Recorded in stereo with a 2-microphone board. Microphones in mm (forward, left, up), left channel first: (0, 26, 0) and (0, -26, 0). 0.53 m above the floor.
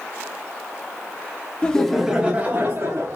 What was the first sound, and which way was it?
Laughter, 20° left (ahead or behind).